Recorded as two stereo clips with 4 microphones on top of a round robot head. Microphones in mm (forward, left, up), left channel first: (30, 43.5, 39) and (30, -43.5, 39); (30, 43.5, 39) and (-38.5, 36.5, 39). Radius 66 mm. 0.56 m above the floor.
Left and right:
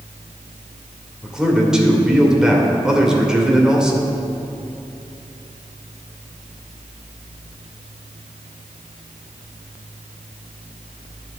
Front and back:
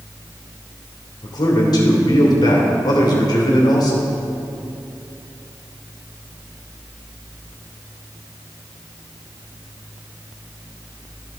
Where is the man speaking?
10° right, 1.8 m.